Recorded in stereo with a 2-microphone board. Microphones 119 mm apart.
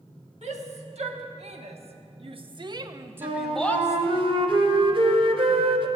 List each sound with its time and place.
0.4 s a shout: 75° right (ahead or behind), 1.8 m; by 4.2 s 35° left (ahead or behind), 0.7 m
3.2 s a flute: 45° right (ahead or behind), 1.1 m